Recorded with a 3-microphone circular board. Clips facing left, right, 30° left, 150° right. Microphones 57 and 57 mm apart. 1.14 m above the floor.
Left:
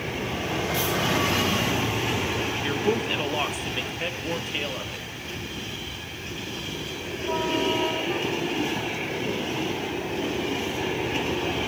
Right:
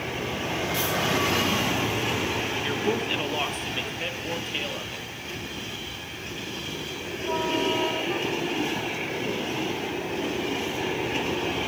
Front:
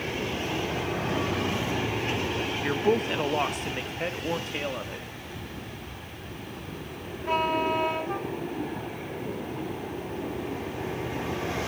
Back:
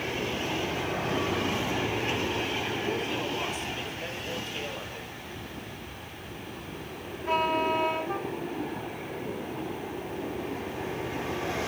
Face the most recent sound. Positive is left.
turn(degrees=10)